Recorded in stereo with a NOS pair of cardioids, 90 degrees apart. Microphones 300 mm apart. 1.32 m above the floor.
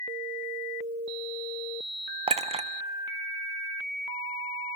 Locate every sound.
2.3 s a clink: 20° right, 0.6 m